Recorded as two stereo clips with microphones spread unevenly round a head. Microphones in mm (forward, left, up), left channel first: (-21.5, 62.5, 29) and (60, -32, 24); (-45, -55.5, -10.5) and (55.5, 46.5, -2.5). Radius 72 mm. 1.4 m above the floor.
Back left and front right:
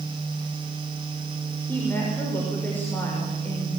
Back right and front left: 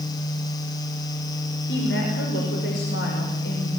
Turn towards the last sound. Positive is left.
turn(degrees=-150)